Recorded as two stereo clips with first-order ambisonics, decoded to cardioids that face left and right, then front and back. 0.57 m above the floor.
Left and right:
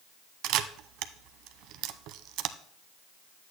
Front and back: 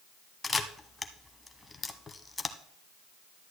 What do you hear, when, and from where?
0.4 s a camera shutter: 80° right, 0.6 m